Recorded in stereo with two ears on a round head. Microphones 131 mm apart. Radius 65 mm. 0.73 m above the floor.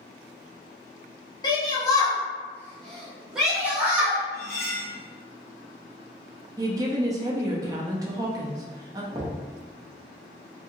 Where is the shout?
30° left (ahead or behind), 1.1 m; by 4.2 s 20° right (ahead or behind), 1.1 m.